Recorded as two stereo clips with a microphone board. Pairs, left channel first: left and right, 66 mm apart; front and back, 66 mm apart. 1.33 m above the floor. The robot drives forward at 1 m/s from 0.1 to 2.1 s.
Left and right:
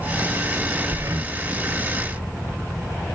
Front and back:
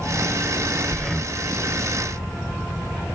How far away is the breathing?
About 0.8 m.